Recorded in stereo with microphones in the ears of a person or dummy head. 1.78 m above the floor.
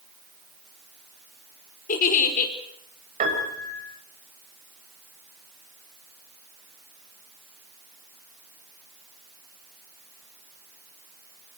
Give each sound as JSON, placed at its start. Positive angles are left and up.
{"t": 1.9, "sound": "a giggle", "side_deg": 50, "distance_m": 5.0}
{"t": 3.2, "sound": "a piano", "side_deg": -40, "distance_m": 7.5}